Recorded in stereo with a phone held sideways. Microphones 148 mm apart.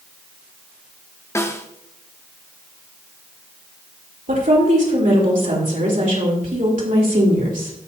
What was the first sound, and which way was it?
A snare drum, 20° left (ahead or behind).